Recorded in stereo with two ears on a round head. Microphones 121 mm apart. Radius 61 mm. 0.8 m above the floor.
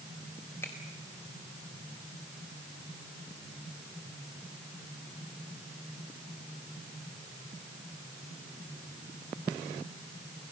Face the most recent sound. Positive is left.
turn(degrees=15)  # may be behind; listen again after turning